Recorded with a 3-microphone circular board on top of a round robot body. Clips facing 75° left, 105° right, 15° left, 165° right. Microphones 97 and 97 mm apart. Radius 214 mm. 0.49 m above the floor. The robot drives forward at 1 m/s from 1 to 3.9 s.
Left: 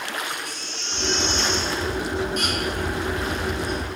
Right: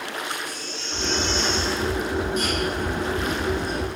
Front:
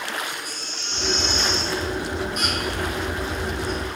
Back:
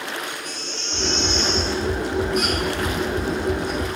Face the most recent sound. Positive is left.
turn(degrees=120)